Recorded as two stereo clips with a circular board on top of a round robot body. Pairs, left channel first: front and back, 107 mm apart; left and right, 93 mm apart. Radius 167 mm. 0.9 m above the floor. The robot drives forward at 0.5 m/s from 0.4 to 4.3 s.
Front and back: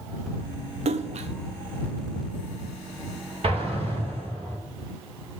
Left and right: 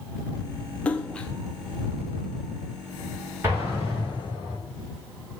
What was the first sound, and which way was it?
A splash, 165° left.